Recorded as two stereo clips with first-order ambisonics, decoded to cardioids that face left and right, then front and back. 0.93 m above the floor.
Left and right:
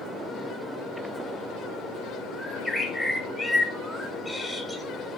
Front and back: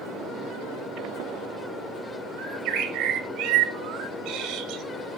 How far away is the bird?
About 1.3 m.